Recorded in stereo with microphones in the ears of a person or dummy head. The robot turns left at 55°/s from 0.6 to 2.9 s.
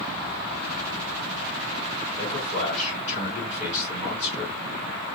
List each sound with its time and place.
2.2 s a man speaking: 80° left, 3.5 m; by 4.5 s 40° left, 3.5 m